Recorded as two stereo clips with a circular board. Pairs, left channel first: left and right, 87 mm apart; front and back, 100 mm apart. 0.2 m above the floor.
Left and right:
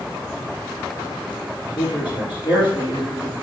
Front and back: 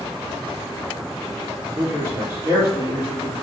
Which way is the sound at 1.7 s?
115° left.